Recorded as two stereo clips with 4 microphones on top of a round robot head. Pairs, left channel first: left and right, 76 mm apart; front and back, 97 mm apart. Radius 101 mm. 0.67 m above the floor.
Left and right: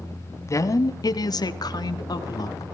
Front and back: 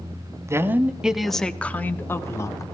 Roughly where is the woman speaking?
Behind left.